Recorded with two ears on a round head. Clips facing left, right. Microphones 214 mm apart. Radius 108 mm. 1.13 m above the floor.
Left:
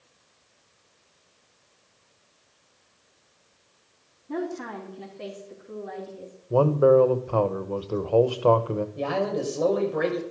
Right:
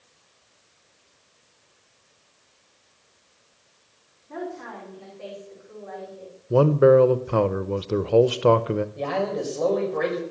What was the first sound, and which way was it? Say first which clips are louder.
A woman speaking: left 3 dB; 60° left (ahead or behind).